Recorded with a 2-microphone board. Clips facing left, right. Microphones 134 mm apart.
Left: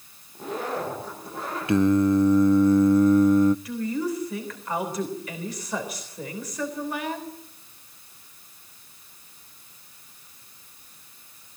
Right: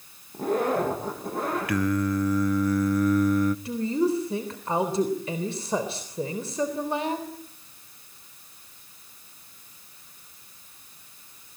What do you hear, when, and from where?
0.3 s a zipper: 50° right (ahead or behind), 9.5 m
1.7 s singing: 25° left (ahead or behind), 0.5 m
3.6 s a woman speaking: 30° right (ahead or behind), 3.5 m